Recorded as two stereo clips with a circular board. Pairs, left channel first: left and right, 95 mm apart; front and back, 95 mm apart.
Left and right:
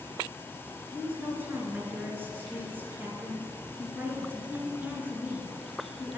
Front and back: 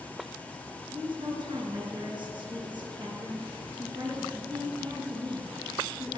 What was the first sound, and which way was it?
A woman speaking, 155° right.